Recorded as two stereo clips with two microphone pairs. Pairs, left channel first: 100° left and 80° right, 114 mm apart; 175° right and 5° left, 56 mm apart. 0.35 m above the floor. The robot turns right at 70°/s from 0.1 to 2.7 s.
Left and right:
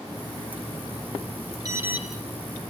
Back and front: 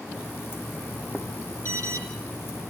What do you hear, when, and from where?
1.6 s an alarm: 25° right, 4.5 m; by 2.0 s straight ahead, 4.5 m